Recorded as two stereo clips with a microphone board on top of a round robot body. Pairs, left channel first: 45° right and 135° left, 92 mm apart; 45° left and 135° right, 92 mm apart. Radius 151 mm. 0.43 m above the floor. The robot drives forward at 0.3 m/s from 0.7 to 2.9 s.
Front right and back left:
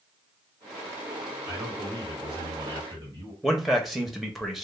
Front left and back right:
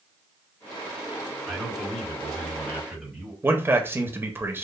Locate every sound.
1.5 s a man speaking: 125° left, 1.5 m; by 3.3 s 140° left, 1.7 m
3.4 s a man speaking: 140° right, 0.7 m